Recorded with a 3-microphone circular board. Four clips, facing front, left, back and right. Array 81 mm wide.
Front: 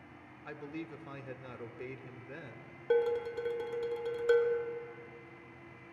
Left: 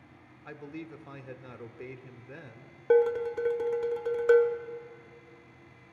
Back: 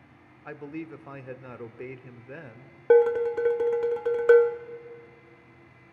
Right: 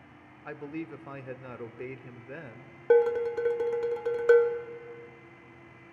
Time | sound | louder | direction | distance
0.5 | a man speaking | right 4 dB, back 6 dB | 140° right | 0.8 m
2.9 | dishes clattering | right 1 dB, back 11 dB | 165° right | 0.8 m